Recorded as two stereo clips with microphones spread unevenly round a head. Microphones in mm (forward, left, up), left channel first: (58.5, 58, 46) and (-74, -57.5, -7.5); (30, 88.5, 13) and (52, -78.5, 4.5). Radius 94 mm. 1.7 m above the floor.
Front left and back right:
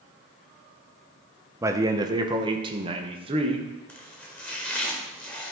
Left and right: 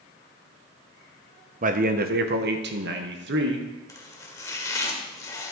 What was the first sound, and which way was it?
A man speaking, 50° right.